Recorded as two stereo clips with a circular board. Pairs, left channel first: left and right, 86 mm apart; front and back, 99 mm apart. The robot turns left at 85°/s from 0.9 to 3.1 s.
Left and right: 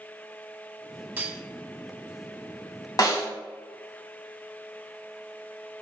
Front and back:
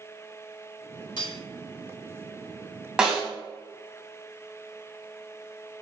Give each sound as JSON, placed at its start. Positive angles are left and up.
{"t": 1.2, "sound": "cutlery clinking", "azimuth_deg": -20, "distance_m": 1.0}
{"t": 3.0, "sound": "a snare drum", "azimuth_deg": 100, "distance_m": 1.9}